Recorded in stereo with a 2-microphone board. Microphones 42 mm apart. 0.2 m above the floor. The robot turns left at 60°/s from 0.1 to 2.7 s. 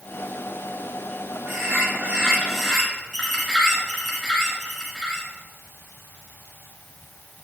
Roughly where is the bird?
Right.